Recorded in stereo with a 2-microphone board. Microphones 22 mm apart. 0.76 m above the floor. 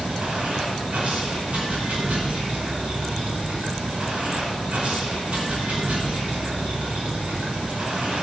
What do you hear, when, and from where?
0.0 s running water: 70° right (ahead or behind), 5 m